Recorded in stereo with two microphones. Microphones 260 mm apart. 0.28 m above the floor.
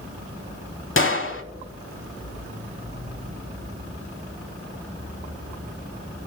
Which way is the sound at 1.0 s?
50° left (ahead or behind).